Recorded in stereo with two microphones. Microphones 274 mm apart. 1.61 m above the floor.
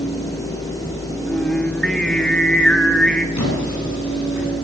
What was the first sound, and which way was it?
Singing, centre (ahead or behind).